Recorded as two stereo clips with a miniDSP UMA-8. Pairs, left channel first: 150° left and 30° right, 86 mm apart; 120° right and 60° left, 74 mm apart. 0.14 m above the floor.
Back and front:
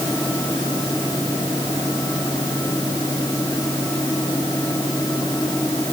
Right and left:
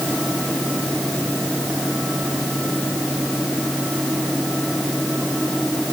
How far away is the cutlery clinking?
No cutlery clinking in this recording.